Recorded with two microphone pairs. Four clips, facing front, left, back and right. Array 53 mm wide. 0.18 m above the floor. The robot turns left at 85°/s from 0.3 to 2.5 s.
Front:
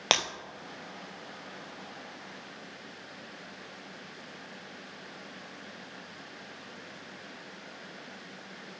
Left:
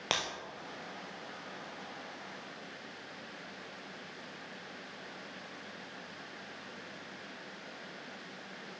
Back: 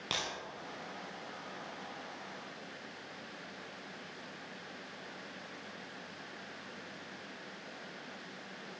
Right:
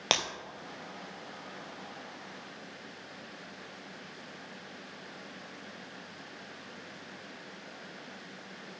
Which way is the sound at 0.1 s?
20° right.